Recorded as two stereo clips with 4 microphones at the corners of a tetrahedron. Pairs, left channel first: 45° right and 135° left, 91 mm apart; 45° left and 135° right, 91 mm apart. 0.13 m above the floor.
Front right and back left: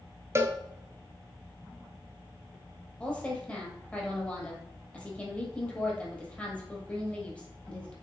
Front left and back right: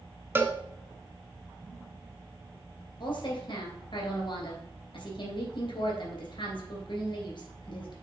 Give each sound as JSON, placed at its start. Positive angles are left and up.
{"t": 0.3, "sound": "a cowbell", "azimuth_deg": 175, "distance_m": 0.7}
{"t": 3.0, "sound": "a woman speaking", "azimuth_deg": 30, "distance_m": 2.5}